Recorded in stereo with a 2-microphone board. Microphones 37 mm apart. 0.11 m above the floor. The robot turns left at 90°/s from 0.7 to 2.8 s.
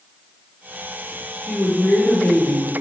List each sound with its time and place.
1.4 s a woman speaking: 160° left, 2.5 m; by 2.7 s 40° left, 2.5 m